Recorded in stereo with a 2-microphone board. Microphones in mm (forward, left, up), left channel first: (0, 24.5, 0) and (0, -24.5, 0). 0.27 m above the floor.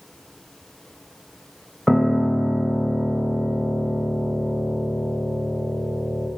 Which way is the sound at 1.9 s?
Centre (ahead or behind).